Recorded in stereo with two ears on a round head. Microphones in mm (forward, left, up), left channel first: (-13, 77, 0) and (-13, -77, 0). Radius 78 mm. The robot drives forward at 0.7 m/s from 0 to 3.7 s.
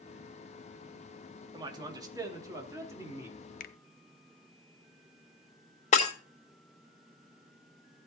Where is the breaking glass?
40° left (ahead or behind), 1.9 m.